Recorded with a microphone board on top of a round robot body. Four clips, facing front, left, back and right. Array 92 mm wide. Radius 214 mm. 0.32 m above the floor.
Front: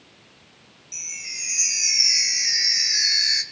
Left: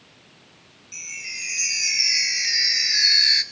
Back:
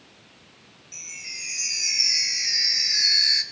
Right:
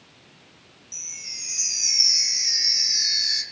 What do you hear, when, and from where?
0.9 s a chime: 75° left, 1.8 m